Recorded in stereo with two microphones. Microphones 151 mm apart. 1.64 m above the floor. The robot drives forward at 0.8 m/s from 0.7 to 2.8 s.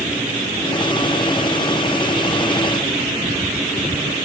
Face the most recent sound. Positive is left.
No sound to turn to.